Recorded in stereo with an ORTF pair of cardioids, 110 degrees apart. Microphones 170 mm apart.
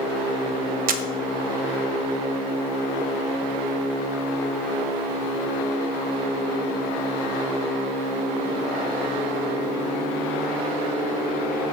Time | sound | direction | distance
0.9 | a camera shutter | 65° right | 0.7 m